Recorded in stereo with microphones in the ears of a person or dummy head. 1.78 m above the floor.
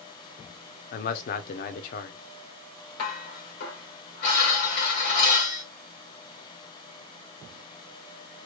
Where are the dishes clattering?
55° left (ahead or behind), 1.5 m.